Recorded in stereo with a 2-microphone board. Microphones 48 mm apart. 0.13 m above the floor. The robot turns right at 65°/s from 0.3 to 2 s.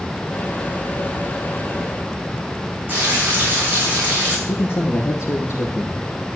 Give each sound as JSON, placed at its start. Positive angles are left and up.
{"t": 2.9, "sound": "frying", "side_deg": -35, "distance_m": 6.0}
{"t": 4.5, "sound": "a man speaking", "side_deg": 55, "distance_m": 4.0}